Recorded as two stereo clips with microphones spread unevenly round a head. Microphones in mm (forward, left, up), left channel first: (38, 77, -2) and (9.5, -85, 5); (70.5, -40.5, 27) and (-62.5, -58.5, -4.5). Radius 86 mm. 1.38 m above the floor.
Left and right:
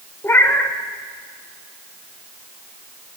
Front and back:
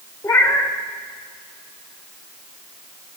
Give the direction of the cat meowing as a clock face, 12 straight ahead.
12 o'clock.